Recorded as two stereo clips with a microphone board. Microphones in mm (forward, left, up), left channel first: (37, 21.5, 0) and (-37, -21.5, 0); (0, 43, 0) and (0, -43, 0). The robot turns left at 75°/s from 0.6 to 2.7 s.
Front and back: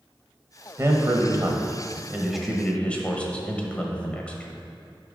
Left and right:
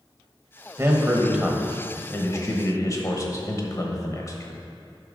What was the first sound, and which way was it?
A man speaking, 120° right.